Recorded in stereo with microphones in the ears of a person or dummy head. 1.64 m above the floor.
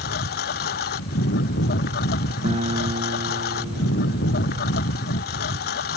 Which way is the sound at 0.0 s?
50° left (ahead or behind).